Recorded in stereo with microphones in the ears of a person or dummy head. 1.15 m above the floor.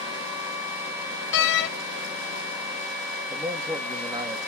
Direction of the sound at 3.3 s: 20° right (ahead or behind).